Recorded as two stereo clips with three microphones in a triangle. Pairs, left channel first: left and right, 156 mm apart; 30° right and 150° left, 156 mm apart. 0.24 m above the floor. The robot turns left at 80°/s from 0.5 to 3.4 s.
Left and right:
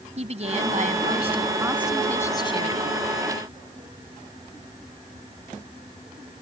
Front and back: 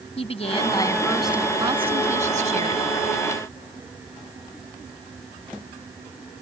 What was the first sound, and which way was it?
A woman speaking, 65° right.